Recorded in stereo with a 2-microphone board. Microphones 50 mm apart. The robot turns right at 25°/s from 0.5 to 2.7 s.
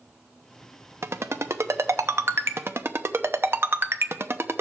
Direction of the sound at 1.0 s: 65° right (ahead or behind).